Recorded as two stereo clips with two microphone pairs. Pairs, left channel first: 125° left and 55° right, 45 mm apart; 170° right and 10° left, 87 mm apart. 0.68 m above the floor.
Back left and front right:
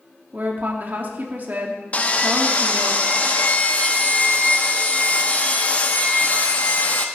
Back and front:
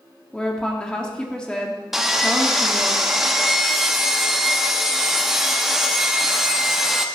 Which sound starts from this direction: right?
A woman speaking, at 0.3 s.